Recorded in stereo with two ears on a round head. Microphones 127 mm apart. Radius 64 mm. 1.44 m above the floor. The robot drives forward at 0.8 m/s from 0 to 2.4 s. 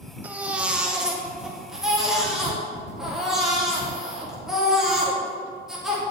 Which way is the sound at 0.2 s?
10° right (ahead or behind).